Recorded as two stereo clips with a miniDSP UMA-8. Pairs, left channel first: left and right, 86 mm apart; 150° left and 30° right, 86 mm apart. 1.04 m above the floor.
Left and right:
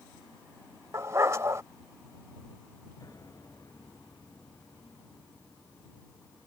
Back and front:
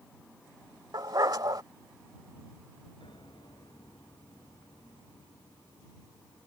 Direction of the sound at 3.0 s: 135° left.